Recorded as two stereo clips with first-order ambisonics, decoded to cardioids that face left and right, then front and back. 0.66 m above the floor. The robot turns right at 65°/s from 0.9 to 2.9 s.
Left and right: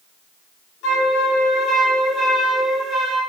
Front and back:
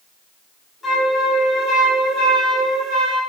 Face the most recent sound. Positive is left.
turn(degrees=-150)